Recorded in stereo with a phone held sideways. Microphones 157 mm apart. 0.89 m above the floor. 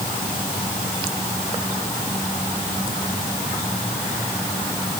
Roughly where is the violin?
I don't hear a violin.